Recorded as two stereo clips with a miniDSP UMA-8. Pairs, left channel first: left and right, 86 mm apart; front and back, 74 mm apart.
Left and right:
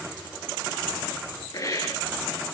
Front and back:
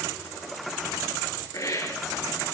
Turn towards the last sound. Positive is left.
turn(degrees=40)